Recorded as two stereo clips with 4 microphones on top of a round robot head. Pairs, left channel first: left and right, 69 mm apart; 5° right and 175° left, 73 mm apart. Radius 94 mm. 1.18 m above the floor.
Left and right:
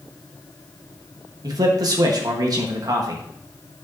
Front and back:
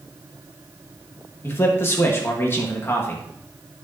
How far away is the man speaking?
About 1.2 m.